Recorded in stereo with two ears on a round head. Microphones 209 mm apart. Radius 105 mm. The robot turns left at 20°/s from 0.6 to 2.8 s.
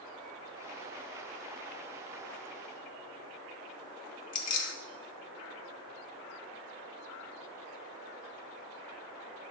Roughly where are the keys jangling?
Left.